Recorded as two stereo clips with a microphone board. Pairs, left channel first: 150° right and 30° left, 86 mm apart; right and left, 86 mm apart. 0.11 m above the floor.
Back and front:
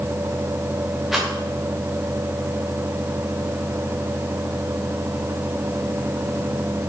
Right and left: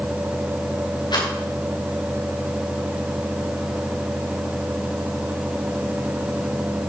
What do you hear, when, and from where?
1.1 s a rattle: 60° right, 5.5 m